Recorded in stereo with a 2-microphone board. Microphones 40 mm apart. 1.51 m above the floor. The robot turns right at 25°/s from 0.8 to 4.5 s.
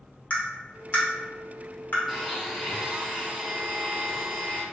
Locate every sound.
0.3 s tapping: 35° left (ahead or behind), 0.9 m; by 2.0 s 55° left (ahead or behind), 0.9 m
2.1 s a blender: 175° right, 1.8 m; by 4.6 s 115° right, 1.8 m